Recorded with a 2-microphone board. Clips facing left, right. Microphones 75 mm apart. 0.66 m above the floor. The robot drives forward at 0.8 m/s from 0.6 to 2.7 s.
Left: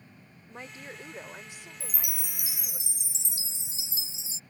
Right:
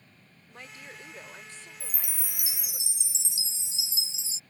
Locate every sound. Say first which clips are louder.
0.5 s a woman speaking: left 3 dB; 25° left (ahead or behind); by 2.8 s 10° left (ahead or behind)
1.8 s a chime: left 3 dB; 65° left (ahead or behind); by 4.4 s 45° left (ahead or behind)